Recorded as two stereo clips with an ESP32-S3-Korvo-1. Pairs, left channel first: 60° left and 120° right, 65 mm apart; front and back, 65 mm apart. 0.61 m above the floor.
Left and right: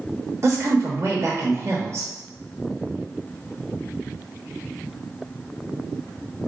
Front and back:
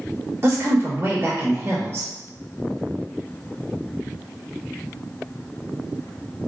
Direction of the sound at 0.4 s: 145° right.